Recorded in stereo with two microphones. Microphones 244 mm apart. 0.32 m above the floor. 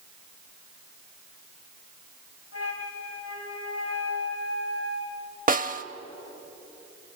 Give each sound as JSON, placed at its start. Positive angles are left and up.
{"t": 2.5, "sound": "a flute", "side_deg": 65, "distance_m": 1.9}
{"t": 5.5, "sound": "a snare drum", "side_deg": -35, "distance_m": 0.6}